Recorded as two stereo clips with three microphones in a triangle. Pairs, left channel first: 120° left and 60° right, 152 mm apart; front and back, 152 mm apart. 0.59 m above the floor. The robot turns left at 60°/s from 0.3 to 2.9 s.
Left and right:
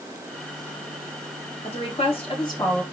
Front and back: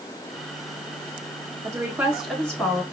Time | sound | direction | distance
1.6 | a woman speaking | 130° left | 1.4 m